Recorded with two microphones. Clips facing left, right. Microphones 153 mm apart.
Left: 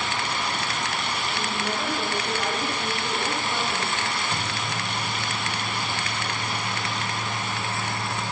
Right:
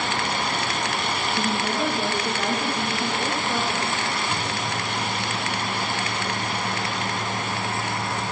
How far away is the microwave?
About 1.3 m.